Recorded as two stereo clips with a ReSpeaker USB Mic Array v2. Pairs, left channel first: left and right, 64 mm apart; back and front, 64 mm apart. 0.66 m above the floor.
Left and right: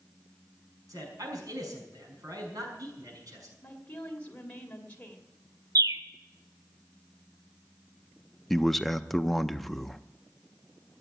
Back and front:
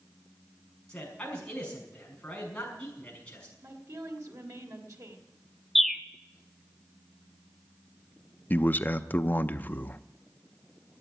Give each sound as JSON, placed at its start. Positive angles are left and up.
{"t": 0.9, "sound": "a man speaking", "azimuth_deg": -105, "distance_m": 6.0}
{"t": 3.6, "sound": "a woman speaking", "azimuth_deg": 25, "distance_m": 2.5}
{"t": 5.8, "sound": "a bird", "azimuth_deg": -90, "distance_m": 0.6}
{"t": 8.5, "sound": "a man speaking", "azimuth_deg": 170, "distance_m": 0.5}